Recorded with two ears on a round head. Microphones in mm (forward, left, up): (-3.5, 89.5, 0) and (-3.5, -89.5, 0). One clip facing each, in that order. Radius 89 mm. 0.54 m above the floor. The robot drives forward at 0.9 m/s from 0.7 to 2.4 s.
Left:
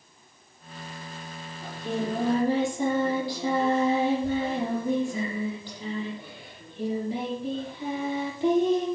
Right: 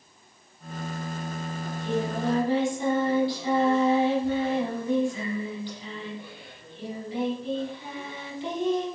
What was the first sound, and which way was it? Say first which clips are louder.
Singing: right 1 dB; 35° left (ahead or behind).